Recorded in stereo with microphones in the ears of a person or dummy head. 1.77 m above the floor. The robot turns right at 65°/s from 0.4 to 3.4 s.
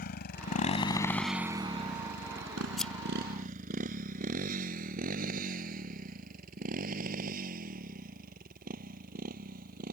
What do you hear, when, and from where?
0.0 s a motorcycle: 45° left (ahead or behind); by 9.9 s 50° right (ahead or behind)
2.8 s scissors: 5° right (ahead or behind); by 2.9 s 5° left (ahead or behind)